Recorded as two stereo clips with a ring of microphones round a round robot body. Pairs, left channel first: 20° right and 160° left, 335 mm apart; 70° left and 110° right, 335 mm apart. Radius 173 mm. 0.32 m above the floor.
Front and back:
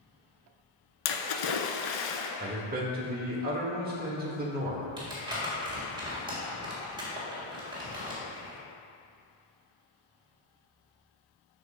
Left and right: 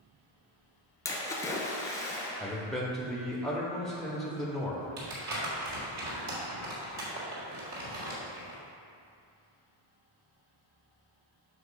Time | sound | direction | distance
1.1 | a splash | 15° right | 0.8 m
2.4 | a man speaking | 155° left | 0.9 m
5.0 | crumpling | 130° right | 2.0 m